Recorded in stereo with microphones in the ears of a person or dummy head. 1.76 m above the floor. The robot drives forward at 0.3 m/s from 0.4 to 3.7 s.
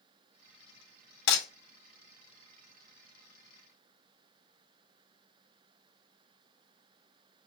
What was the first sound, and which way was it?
Breaking glass, 60° left (ahead or behind).